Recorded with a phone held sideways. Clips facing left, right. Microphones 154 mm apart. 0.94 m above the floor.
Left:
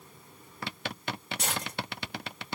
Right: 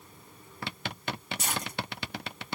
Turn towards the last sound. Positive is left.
turn(degrees=80)